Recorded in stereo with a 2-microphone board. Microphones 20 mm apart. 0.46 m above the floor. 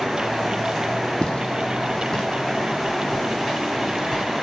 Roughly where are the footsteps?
Left.